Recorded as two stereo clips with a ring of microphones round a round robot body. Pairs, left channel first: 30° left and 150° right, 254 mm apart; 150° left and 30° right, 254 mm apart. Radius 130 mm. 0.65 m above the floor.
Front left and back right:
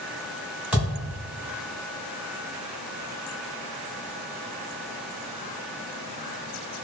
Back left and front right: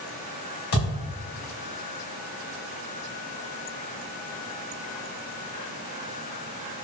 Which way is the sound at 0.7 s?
125° left.